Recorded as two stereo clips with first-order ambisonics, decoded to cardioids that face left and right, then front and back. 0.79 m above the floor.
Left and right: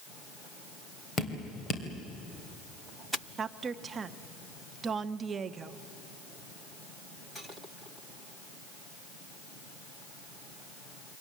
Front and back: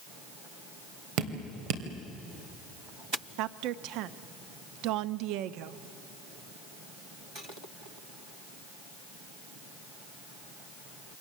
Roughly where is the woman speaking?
Behind.